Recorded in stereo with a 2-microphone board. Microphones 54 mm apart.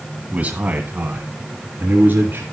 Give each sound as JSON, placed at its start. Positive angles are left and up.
{"t": 0.3, "sound": "a man speaking", "side_deg": -30, "distance_m": 1.7}